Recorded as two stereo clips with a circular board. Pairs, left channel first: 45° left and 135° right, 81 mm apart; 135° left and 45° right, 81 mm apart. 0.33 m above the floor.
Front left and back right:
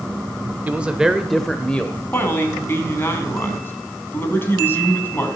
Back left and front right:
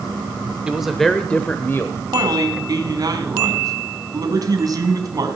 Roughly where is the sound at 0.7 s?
Right.